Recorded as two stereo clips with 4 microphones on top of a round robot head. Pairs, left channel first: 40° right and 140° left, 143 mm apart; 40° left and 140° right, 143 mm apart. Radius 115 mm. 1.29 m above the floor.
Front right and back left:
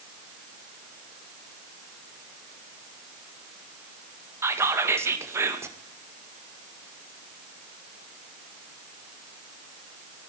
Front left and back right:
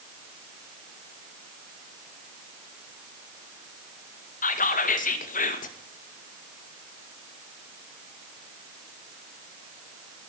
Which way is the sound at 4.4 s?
70° left.